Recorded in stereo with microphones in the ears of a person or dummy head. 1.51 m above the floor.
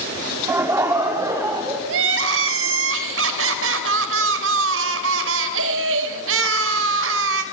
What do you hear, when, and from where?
0.5 s laughter: 15° right (ahead or behind), 3 m; by 1.8 s 25° right (ahead or behind), 4 m
1.9 s crying: 70° right (ahead or behind), 3.5 m